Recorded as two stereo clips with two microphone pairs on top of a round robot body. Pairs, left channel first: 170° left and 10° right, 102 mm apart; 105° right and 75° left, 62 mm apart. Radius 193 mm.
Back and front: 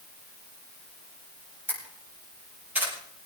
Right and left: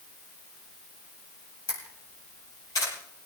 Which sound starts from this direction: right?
A camera shutter, at 1.7 s.